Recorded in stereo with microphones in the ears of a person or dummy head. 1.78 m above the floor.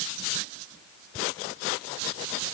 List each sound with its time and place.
Only background noise.